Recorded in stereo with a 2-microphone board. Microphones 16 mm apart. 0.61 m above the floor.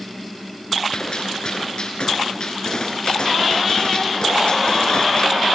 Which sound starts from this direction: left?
A gunshot, at 0.9 s.